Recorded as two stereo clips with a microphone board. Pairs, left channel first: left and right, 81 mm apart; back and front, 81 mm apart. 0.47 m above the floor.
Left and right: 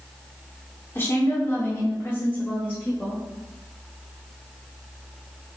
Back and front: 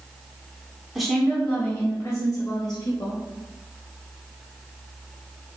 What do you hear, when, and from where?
0.9 s a woman speaking: 85° left, 1.1 m; by 3.2 s 155° left, 2 m